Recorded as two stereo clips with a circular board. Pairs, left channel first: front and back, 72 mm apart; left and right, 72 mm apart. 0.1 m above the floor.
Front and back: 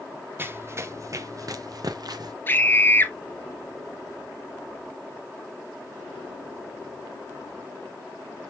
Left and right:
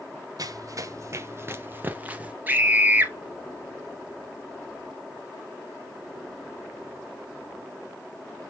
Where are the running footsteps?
120° right, 1.3 m; by 2.4 s 160° right, 1.6 m.